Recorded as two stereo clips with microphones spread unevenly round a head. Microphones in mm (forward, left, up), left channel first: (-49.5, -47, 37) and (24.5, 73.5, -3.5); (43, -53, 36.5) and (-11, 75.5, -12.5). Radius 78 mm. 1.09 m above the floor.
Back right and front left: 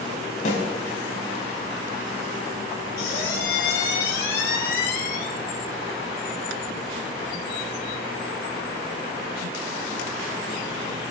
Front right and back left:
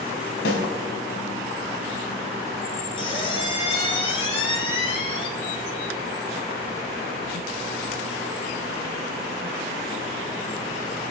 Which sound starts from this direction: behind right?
A squeak, at 3.0 s.